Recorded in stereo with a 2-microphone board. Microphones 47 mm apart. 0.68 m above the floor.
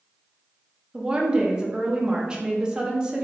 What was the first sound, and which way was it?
A woman speaking, 15° right (ahead or behind).